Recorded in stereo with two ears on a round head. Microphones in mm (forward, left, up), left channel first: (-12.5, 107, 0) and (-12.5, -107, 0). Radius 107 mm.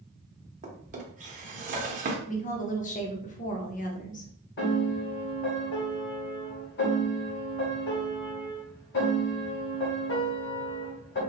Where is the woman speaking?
30° left (ahead or behind), 0.8 m.